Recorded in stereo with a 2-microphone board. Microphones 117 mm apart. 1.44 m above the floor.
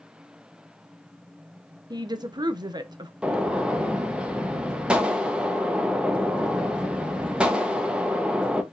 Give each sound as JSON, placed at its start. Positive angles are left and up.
{"t": 1.9, "sound": "a woman speaking", "side_deg": -35, "distance_m": 0.7}
{"t": 3.2, "sound": "a gunshot", "side_deg": -10, "distance_m": 0.8}